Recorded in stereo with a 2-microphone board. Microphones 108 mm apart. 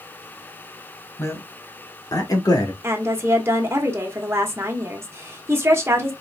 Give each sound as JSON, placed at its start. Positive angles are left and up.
{"t": 1.2, "sound": "a man speaking", "side_deg": 25, "distance_m": 1.2}
{"t": 2.8, "sound": "a woman speaking", "side_deg": -25, "distance_m": 1.1}